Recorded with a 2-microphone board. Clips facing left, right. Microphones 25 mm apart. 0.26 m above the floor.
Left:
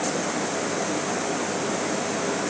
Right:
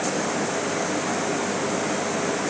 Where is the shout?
No shout in this recording.